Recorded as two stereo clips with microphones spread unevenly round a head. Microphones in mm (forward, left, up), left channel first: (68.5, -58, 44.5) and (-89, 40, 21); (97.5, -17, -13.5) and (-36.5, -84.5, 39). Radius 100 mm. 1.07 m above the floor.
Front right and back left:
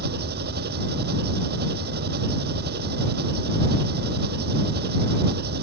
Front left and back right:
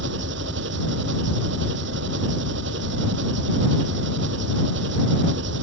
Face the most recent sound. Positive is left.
turn(degrees=-175)